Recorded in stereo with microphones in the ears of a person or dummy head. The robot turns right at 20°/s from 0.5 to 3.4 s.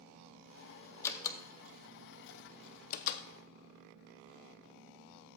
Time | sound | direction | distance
1.0 | a door slam | 20° left (ahead or behind) | 0.5 m